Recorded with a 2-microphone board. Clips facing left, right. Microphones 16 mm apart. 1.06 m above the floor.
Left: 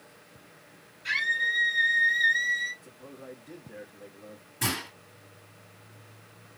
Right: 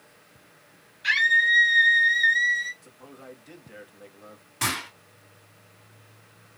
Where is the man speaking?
60° right (ahead or behind), 1.3 m.